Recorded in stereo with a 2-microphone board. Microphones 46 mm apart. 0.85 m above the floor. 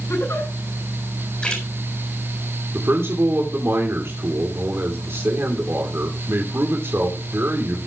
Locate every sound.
0.1 s a giggle: 85° left, 9 m
1.4 s a splash: 20° left (ahead or behind), 6.5 m
2.7 s a man speaking: 70° right (ahead or behind), 2.5 m